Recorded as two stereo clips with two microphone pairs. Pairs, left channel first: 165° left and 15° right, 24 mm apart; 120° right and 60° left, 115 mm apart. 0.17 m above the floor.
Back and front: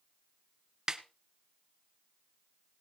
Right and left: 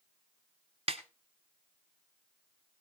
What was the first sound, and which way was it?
A snare drum, 50° left.